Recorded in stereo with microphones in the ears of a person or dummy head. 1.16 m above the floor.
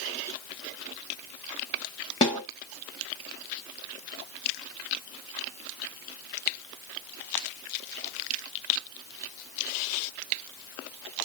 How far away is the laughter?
I don't hear laughter.